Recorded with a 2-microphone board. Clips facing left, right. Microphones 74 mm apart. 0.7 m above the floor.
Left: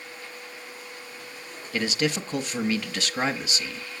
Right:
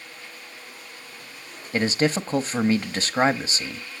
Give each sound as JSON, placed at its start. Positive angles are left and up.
{"t": 1.7, "sound": "a man speaking", "side_deg": -35, "distance_m": 0.7}